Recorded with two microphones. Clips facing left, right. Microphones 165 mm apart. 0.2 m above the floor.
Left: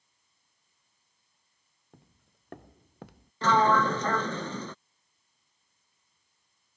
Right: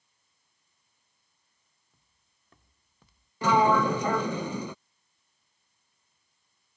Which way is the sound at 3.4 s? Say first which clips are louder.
Right 1 dB; 15° right (ahead or behind).